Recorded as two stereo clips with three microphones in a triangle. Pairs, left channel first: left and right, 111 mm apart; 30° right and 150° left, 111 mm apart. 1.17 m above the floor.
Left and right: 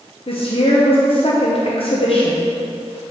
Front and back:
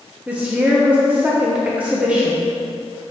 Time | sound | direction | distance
0.3 | a woman speaking | 75° left | 1.0 m